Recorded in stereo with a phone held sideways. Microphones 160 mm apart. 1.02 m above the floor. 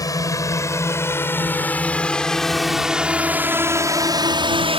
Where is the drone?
20° left (ahead or behind); by 4.8 s 35° right (ahead or behind).